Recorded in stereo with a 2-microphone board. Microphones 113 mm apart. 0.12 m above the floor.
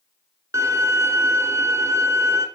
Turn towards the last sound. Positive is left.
turn(degrees=-30)  # may be behind; listen again after turning